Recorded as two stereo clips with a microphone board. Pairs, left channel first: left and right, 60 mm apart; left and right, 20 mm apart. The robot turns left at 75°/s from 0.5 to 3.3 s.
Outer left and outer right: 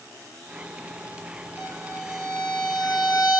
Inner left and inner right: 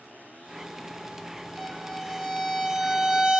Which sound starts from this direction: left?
A violin, at 1.6 s.